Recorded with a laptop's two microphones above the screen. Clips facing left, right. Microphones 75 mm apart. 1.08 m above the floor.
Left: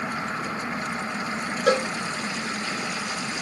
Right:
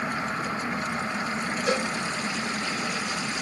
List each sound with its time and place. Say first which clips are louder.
1.7 s a cowbell: left 6 dB; 65° left (ahead or behind), 0.5 m